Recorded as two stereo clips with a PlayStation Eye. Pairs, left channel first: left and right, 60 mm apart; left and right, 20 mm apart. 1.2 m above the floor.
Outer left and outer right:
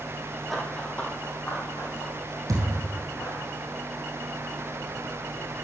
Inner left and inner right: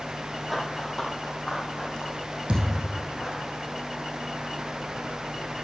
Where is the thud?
65° right (ahead or behind), 3 m.